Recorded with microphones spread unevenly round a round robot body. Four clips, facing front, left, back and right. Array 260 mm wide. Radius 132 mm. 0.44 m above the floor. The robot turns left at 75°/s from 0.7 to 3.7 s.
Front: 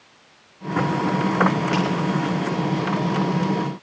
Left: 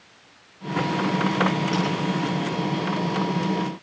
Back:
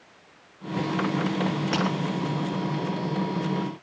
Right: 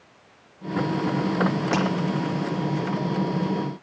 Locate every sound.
1.7 s breaking glass: 90° right, 2.5 m; by 1.9 s 100° right, 2.5 m